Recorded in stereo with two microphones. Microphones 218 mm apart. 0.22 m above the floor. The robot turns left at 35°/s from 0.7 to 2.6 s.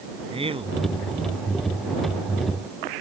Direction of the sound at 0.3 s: 25° right (ahead or behind).